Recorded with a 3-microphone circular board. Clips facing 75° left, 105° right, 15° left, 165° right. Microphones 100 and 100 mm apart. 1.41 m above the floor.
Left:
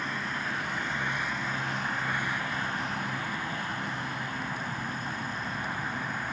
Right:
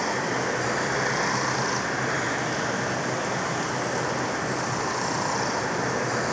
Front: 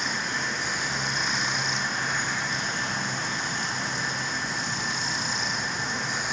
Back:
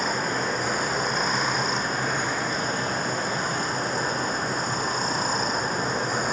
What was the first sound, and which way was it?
Running water, 115° right.